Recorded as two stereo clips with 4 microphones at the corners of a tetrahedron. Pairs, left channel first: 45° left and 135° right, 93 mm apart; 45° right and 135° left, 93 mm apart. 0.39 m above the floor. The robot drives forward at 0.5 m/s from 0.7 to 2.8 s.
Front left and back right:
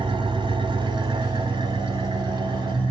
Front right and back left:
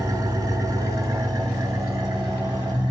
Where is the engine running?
170° right, 1.0 m; by 2.9 s 175° right, 2 m.